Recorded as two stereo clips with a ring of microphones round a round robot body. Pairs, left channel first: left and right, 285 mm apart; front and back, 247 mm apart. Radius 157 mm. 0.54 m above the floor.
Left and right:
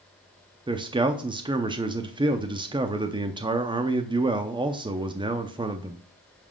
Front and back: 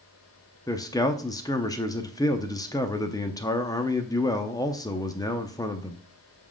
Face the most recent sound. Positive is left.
turn(degrees=-50)